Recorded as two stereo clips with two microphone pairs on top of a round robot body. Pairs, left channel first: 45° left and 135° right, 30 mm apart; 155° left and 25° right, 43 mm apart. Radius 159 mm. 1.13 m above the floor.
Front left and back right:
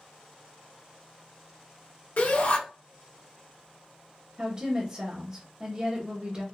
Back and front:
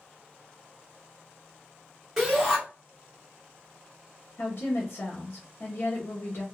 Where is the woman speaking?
165° left, 1.3 m.